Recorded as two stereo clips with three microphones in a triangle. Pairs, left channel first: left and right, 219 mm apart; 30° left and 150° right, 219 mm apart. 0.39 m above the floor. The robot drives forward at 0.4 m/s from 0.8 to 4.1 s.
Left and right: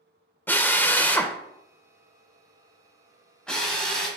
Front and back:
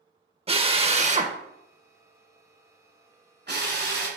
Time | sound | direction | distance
0.5 | a drill | 165° left | 0.7 m